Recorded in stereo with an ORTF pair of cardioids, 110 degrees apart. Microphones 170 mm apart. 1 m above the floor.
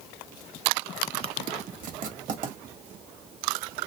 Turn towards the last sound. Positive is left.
turn(degrees=-55)